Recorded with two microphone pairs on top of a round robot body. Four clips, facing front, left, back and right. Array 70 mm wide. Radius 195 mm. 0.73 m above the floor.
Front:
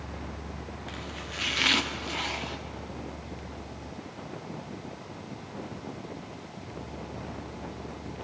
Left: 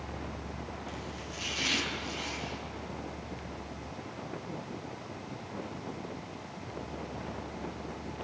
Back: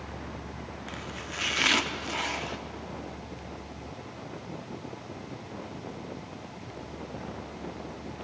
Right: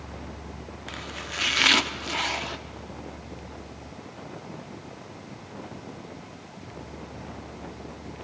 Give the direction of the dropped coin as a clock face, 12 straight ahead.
I don't hear a dropped coin.